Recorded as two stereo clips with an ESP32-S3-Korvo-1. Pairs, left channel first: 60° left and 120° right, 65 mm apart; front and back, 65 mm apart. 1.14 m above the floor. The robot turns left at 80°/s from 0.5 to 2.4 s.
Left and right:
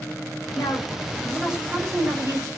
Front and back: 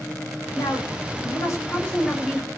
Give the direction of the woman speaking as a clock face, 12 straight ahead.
11 o'clock.